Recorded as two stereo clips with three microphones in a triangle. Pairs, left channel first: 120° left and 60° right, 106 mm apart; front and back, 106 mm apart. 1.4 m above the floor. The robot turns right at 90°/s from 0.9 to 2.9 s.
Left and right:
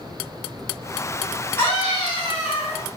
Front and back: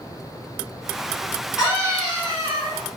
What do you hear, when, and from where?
1.6 s a scream: 90° left, 1.8 m; by 2.9 s 155° right, 1.8 m